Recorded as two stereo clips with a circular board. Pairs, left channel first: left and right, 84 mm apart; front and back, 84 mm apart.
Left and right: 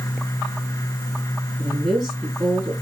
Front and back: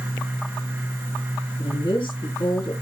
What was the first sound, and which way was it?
A woman speaking, 10° left.